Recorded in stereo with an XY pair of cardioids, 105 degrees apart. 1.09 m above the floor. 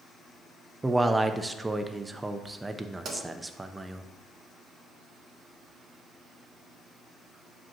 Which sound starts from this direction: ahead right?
A pop, at 3.0 s.